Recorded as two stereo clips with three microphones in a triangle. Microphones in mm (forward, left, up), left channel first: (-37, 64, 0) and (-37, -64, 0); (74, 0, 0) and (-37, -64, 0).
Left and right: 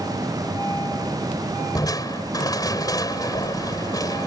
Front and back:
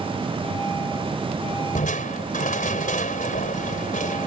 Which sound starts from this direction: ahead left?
Crushing, at 1.8 s.